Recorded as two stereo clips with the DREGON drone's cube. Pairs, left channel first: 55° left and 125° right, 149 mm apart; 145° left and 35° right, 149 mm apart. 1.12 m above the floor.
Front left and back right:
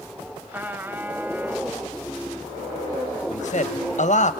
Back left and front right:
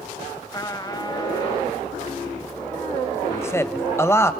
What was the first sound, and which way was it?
A trumpet, 170° left.